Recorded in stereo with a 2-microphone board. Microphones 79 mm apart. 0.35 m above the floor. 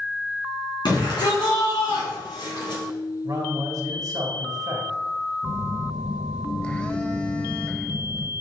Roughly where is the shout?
Left.